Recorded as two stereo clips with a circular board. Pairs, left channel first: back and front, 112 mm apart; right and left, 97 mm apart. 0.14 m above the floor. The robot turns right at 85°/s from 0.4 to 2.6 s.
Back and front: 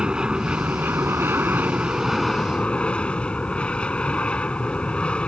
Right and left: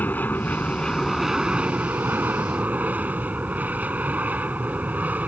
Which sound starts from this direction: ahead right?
An aircraft, at 0.0 s.